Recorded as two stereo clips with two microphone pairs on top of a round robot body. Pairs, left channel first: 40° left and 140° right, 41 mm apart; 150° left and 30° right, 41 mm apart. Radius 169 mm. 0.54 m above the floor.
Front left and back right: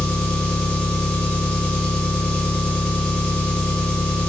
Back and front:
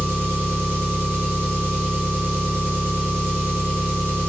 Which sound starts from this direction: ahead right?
An engine running, at 0.0 s.